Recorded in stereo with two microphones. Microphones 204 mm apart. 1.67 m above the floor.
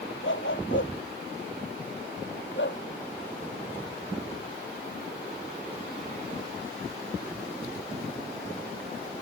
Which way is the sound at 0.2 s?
70° left (ahead or behind).